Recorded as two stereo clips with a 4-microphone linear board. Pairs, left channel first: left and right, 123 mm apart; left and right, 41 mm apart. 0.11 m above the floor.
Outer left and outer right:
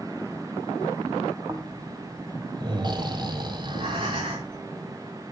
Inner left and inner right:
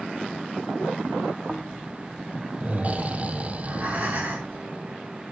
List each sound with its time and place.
1.5 s snoring: 35° right (ahead or behind), 2 m
3.5 s breathing: 45° right (ahead or behind), 8 m